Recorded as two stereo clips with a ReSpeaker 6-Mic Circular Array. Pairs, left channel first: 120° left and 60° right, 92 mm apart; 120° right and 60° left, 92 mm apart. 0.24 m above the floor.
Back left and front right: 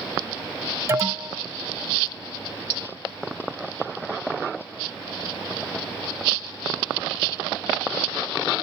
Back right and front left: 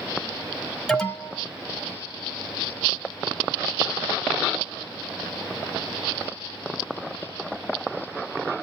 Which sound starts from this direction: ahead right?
An alarm, at 0.9 s.